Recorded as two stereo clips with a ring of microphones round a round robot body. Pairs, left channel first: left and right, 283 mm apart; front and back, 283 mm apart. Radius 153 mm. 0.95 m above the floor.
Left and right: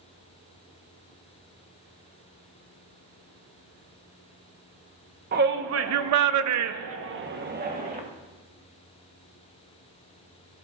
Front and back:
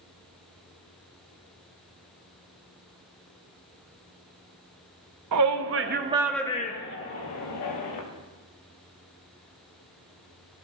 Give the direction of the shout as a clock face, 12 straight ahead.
5 o'clock.